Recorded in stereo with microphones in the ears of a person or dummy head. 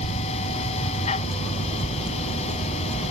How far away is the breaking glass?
No breaking glass in this recording.